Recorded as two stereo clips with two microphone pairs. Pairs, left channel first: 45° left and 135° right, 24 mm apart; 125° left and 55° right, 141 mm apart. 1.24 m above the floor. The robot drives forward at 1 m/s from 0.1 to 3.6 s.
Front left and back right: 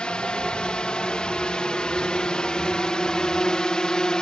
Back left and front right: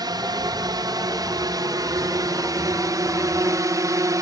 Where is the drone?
Straight ahead.